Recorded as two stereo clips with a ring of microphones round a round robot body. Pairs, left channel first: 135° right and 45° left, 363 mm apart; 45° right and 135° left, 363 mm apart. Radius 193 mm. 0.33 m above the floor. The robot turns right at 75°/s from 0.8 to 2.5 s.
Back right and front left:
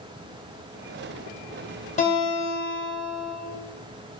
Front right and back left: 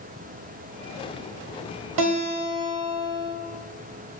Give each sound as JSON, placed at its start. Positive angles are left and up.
{"t": 2.0, "sound": "a guitar", "azimuth_deg": 155, "distance_m": 0.6}